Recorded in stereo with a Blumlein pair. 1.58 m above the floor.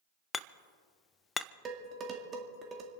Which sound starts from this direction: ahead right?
Dishes clattering, at 1.6 s.